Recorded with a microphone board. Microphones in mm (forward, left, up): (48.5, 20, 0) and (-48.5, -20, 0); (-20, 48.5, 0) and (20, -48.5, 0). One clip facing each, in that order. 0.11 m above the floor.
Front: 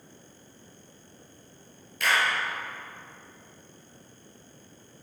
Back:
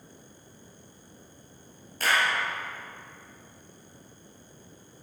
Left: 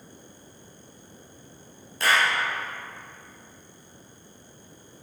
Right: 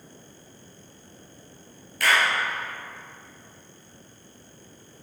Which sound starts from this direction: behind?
A clap, at 2.0 s.